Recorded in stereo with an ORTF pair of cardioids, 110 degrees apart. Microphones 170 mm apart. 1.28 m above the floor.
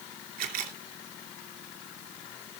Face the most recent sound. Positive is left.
turn(degrees=-70)